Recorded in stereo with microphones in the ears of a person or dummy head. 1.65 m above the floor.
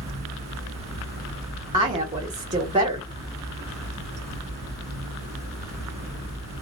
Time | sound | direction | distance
0.0 | running water | 15° right (ahead or behind) | 2 m
1.7 | a woman speaking | 25° right (ahead or behind) | 1.2 m